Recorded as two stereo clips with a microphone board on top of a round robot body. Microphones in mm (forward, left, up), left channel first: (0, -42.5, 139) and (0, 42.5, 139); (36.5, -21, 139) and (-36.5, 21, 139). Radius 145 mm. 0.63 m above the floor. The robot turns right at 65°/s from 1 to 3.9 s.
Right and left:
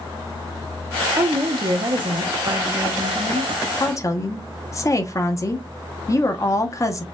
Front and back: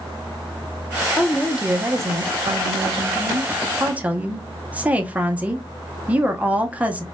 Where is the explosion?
I don't hear an explosion.